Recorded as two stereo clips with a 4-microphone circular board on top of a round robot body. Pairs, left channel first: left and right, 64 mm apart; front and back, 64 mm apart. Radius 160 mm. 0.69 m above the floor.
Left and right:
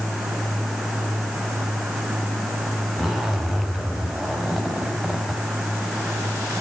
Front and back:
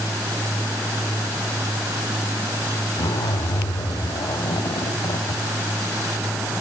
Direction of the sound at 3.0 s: 5° right.